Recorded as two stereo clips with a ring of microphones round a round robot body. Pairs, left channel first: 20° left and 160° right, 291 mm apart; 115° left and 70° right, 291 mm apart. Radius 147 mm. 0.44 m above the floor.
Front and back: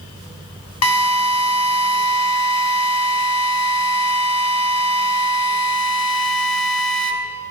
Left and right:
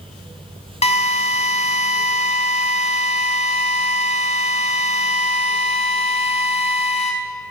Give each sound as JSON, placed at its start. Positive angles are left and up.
{"t": 0.8, "sound": "a drill", "azimuth_deg": 45, "distance_m": 2.0}